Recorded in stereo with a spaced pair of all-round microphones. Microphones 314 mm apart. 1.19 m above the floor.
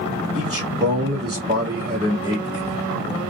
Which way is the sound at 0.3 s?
20° right (ahead or behind).